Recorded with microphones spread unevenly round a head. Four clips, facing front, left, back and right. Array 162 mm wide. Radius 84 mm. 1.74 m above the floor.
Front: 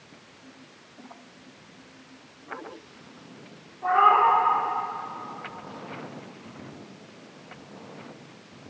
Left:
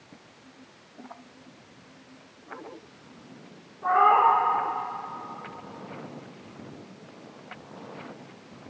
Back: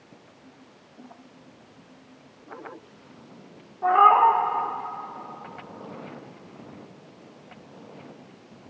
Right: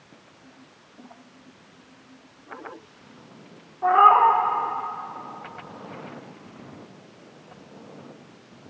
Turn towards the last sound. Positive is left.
turn(degrees=-105)